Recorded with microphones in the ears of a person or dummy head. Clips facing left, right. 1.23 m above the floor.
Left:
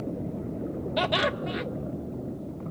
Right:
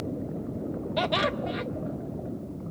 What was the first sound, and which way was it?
Laughter, centre (ahead or behind).